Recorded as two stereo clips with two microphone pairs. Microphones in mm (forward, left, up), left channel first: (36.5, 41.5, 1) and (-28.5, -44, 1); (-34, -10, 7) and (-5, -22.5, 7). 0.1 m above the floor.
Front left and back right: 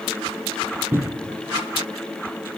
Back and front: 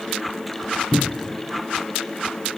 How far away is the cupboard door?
About 0.6 m.